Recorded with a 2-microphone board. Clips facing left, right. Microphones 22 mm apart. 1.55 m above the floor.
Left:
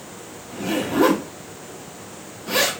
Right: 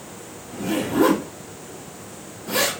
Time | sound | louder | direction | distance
0.5 | a zipper | even | 50° left (ahead or behind) | 1.3 m